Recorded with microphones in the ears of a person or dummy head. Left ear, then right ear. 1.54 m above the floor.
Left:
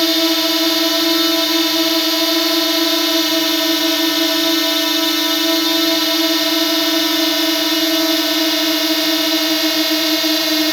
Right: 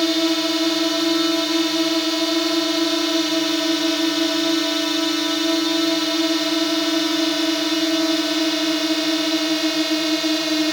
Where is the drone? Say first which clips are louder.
Left 5 dB; 25° left (ahead or behind).